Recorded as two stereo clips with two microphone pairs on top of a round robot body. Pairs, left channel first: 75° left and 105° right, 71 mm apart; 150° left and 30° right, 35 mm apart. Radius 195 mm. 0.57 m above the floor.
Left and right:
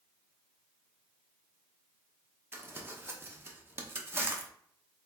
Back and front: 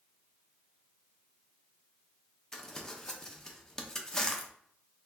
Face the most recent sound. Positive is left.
turn(degrees=-130)